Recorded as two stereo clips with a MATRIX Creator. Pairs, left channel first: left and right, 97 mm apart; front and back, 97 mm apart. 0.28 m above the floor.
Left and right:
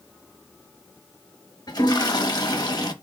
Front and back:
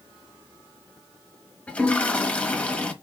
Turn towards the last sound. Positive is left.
turn(degrees=70)